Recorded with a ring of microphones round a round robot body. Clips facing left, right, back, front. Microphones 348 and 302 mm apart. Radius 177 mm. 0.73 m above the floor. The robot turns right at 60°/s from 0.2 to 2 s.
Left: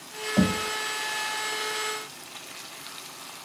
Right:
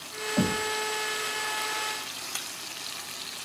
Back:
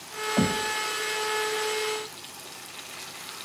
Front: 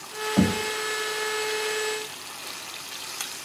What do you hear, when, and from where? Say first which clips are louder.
0.4 s knocking: left 3 dB, front 3 dB; 50° left, 3.5 m; by 0.7 s 70° left, 3.5 m